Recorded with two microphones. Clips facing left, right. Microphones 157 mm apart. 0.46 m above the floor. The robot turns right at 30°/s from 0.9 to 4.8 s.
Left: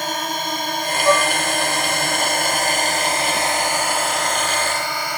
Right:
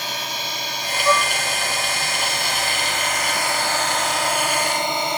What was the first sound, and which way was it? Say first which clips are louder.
A drone: left 6 dB; 50° left (ahead or behind).